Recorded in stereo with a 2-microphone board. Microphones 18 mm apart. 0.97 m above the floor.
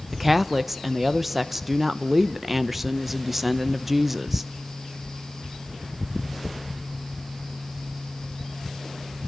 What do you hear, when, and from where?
0.1 s a woman speaking: 10° right (ahead or behind), 0.7 m